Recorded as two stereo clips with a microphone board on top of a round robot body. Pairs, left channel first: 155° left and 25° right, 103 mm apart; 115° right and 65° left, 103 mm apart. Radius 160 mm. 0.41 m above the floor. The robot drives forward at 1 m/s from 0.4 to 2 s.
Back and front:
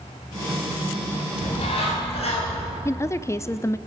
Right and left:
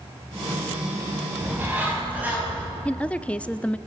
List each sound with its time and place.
1.4 s a bird: 140° left, 4.5 m
2.9 s a woman speaking: straight behind, 0.8 m